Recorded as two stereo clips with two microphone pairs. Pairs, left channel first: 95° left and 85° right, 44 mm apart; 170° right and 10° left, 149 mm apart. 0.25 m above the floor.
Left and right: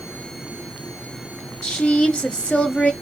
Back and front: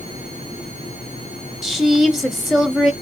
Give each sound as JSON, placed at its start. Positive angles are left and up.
{"t": 1.6, "sound": "a woman speaking", "azimuth_deg": 95, "distance_m": 1.0}